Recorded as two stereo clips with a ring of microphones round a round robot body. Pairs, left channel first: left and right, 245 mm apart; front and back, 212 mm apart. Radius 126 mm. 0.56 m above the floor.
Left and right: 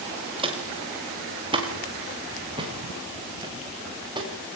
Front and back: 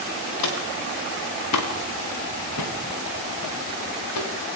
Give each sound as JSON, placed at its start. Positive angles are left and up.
{"t": 0.4, "sound": "footsteps", "azimuth_deg": -20, "distance_m": 6.0}